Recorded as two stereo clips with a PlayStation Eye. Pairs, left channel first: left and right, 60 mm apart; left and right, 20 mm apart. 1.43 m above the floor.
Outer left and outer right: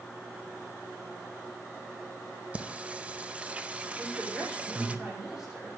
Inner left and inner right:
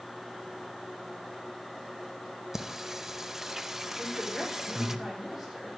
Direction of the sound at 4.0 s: 10° right (ahead or behind).